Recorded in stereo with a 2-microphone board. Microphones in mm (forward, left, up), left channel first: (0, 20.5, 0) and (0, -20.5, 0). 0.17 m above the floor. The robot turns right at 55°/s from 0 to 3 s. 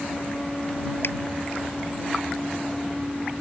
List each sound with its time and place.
1.0 s a finger snap: 70° left (ahead or behind)